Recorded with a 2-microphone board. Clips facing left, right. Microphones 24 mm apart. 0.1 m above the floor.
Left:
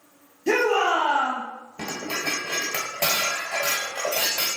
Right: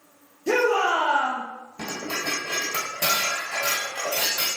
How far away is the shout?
About 1.9 m.